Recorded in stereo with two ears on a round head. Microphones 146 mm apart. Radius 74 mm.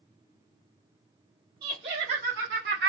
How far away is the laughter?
About 1.5 m.